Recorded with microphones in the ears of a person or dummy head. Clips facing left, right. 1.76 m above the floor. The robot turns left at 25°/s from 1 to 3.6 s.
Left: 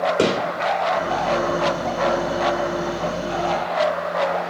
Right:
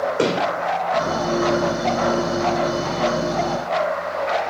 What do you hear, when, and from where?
0.2 s a gunshot: 35° left (ahead or behind), 3.5 m